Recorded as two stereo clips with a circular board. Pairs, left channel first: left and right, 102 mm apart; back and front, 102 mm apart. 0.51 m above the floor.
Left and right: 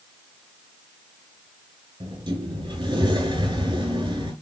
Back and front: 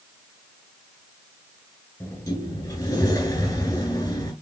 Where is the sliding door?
130° right, 4.5 m.